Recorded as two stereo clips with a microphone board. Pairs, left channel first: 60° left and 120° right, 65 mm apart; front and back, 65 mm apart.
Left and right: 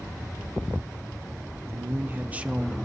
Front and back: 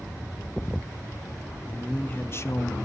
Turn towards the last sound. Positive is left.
turn(degrees=-35)